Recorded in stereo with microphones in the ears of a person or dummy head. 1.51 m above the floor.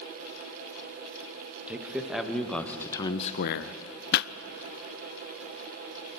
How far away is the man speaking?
About 1.6 m.